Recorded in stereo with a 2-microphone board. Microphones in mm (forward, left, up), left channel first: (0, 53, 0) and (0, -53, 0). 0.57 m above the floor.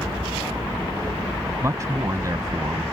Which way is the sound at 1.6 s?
30° right (ahead or behind).